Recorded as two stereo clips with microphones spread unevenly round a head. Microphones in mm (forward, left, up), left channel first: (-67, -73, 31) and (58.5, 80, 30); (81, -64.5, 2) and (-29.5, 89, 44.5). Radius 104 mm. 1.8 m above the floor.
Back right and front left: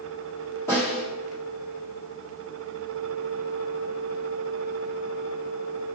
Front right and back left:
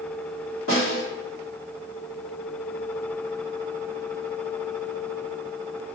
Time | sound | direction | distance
0.7 | a snare drum | 55° right | 1.7 m